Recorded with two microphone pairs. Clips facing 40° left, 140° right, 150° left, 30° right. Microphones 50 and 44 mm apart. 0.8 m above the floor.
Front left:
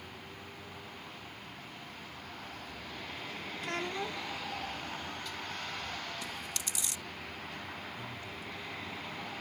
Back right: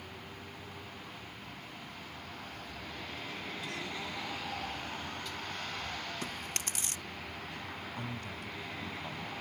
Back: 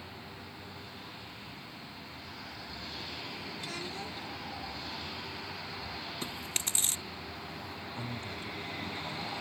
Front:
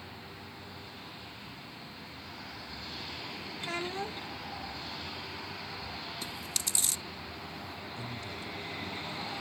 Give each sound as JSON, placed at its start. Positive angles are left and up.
{"t": 3.6, "sound": "a child speaking", "azimuth_deg": 15}
{"t": 6.2, "sound": "chewing", "azimuth_deg": -170}
{"t": 8.0, "sound": "a man speaking", "azimuth_deg": -160}